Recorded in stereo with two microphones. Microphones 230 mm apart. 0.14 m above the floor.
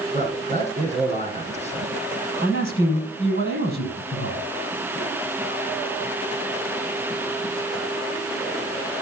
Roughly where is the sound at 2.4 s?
Left.